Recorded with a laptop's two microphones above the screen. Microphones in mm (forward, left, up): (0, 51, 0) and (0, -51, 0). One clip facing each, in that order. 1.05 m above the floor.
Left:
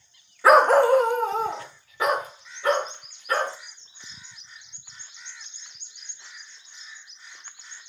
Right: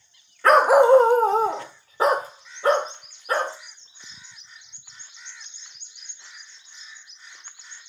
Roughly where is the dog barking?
Centre.